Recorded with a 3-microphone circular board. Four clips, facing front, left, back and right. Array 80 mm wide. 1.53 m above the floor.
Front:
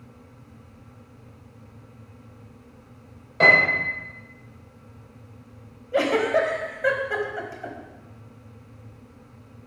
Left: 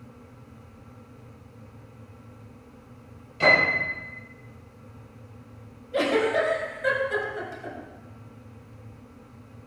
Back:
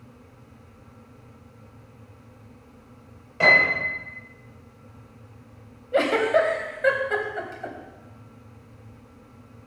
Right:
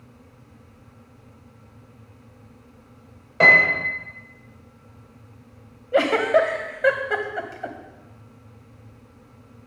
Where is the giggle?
100° right, 1.8 m.